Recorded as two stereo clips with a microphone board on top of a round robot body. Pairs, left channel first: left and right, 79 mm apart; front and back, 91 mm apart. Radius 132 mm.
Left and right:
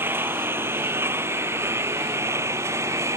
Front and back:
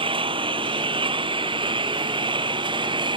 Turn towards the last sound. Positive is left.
turn(degrees=-145)